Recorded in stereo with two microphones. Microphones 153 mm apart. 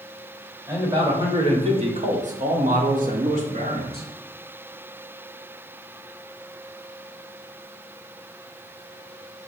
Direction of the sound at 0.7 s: 20° right (ahead or behind).